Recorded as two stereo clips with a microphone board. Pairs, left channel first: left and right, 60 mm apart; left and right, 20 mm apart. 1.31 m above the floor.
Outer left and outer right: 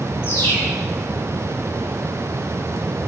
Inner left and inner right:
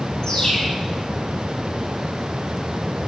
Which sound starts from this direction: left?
A bird, at 0.2 s.